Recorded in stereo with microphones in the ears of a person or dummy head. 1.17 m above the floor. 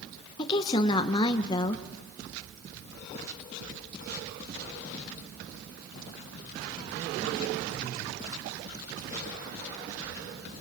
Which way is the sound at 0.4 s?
25° left (ahead or behind).